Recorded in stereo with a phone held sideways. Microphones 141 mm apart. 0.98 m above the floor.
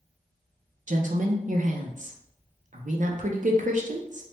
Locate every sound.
0.9 s a woman speaking: 65° right (ahead or behind), 0.5 m